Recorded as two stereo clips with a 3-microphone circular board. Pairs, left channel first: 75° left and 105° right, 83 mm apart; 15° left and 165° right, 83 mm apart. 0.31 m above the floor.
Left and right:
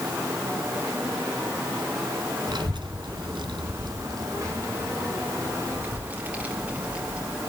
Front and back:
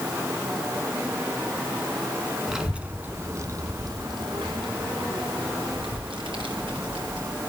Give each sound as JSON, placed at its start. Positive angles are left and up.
{"t": 2.5, "sound": "a child speaking", "azimuth_deg": -80, "distance_m": 1.8}